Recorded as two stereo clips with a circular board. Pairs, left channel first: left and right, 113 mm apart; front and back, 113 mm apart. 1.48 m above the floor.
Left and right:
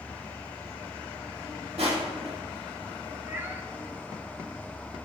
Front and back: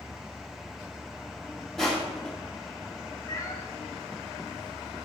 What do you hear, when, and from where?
1.8 s crushing: 85° right, 2.0 m
3.3 s a cat meowing: 30° right, 0.9 m